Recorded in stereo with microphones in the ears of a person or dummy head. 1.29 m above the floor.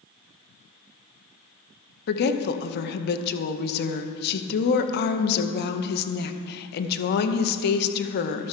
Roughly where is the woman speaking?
Left.